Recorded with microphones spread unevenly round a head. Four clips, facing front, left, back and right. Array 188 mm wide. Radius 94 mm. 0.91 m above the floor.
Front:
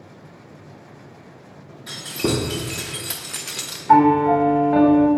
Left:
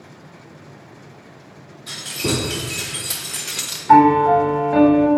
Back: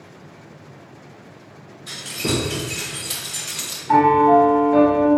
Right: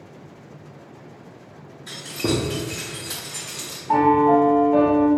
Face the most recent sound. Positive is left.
turn(degrees=80)